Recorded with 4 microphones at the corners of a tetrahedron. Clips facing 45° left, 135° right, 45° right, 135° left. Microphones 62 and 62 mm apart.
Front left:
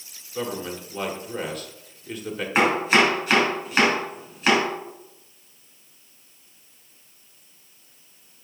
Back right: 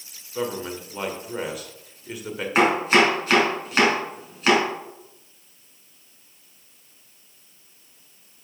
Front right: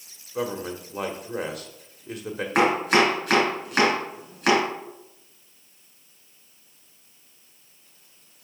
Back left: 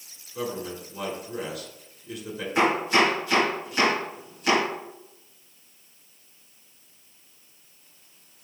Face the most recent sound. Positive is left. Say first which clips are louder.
# back right 1 dB, front right 2 dB
turn(degrees=-45)